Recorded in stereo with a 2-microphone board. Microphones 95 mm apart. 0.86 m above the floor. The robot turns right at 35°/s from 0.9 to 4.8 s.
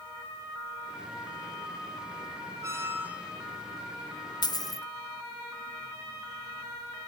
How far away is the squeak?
About 1.2 m.